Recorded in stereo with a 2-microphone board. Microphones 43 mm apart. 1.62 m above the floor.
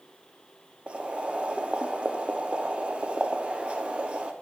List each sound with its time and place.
0.9 s boiling: 30° right (ahead or behind), 0.5 m